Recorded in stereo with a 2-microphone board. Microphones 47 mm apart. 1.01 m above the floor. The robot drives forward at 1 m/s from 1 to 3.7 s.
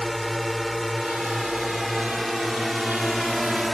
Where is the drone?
Centre (ahead or behind).